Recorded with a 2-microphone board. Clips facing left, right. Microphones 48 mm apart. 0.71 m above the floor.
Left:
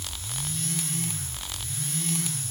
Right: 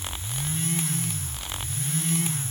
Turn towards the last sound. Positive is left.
No sound to turn to.